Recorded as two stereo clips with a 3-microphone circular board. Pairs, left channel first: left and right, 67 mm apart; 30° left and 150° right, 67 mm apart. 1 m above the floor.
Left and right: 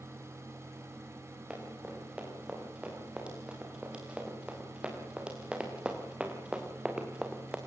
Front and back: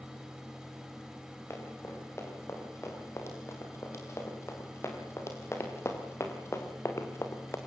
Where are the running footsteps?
15° right, 8.5 m.